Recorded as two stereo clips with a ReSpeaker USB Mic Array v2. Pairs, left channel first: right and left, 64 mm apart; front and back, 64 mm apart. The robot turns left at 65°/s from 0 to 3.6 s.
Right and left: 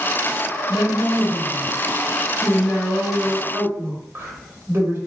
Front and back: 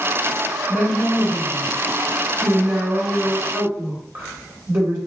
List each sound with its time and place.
0.7 s a woman speaking: 35° right, 1.7 m; by 5.0 s 135° left, 1.7 m